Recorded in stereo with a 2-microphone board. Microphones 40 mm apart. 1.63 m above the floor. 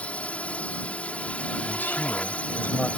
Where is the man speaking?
45° left (ahead or behind).